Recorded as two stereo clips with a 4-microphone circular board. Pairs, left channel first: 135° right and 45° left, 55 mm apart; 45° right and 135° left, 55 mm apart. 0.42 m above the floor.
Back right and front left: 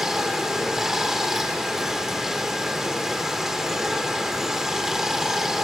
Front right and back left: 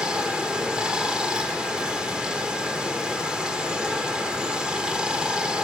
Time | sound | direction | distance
0.0 | running water | 110° left | 0.9 m